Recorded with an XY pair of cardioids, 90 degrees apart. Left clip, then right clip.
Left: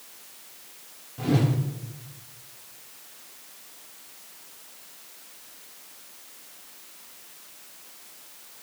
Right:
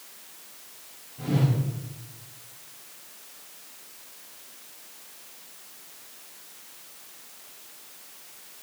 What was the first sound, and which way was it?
A whoosh, 65° left.